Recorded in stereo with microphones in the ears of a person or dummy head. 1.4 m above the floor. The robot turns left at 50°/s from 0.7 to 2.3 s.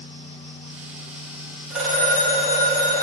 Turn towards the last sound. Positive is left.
turn(degrees=20)  # may be behind; listen again after turning